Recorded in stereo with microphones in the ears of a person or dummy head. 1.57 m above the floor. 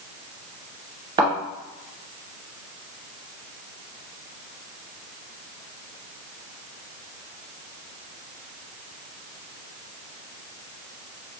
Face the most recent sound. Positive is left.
turn(degrees=-30)  # may be behind; listen again after turning